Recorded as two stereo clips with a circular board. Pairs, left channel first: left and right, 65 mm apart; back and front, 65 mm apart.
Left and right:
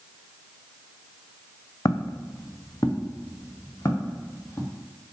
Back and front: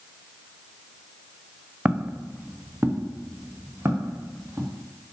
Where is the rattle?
I don't hear a rattle.